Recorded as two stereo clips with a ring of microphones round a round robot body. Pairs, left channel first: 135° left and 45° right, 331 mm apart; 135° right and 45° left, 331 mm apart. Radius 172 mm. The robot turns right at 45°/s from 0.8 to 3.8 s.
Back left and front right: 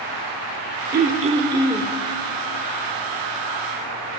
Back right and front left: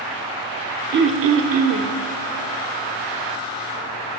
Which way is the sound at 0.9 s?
Straight ahead.